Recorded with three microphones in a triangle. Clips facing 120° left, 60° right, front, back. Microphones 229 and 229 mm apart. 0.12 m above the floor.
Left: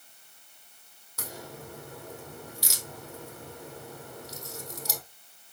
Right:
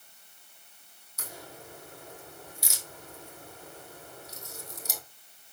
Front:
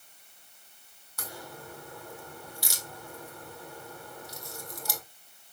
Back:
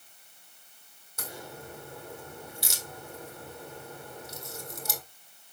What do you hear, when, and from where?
1.2 s a crack: 110° left, 1.8 m